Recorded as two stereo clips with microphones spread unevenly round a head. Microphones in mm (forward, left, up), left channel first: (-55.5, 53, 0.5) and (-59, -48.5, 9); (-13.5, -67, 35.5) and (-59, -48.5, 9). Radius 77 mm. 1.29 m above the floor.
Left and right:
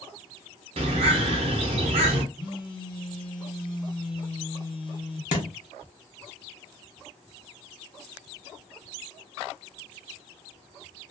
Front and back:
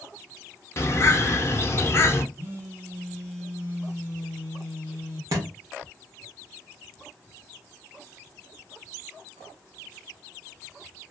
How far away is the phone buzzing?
About 1.2 m.